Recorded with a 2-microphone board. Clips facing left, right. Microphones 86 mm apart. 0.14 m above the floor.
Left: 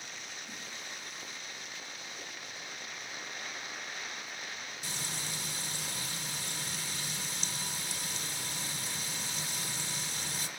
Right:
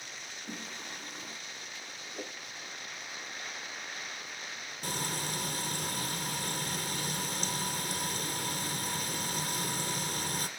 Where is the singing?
50° right (ahead or behind), 4 m.